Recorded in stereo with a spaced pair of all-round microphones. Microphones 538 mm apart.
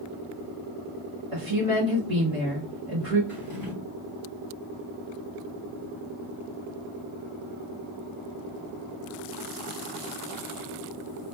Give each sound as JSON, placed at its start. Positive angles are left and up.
{"t": 1.3, "sound": "a woman speaking", "side_deg": -85, "distance_m": 2.0}
{"t": 3.3, "sound": "a drawer", "side_deg": -75, "distance_m": 3.0}